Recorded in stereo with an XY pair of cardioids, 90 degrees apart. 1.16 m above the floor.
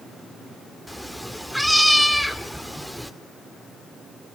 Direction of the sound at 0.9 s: 5° right.